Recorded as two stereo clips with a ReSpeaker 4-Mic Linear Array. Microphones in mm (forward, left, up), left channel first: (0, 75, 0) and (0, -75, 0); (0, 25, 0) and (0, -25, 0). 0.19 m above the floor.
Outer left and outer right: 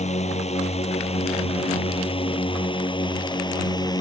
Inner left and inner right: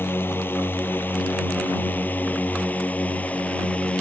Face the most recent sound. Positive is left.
turn(degrees=25)  # may be behind; listen again after turning